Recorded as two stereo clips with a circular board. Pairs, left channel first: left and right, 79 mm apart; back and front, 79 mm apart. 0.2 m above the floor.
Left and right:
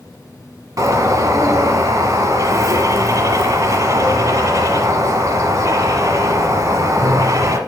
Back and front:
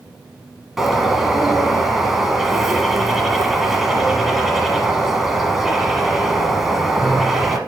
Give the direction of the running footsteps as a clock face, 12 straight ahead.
I don't hear running footsteps.